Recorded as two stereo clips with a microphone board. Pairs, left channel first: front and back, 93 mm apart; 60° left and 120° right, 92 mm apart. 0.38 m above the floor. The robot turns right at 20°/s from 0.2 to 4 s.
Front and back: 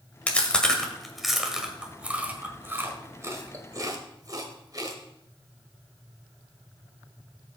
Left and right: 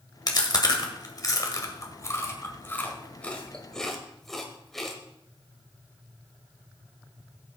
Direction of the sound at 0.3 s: 75° left.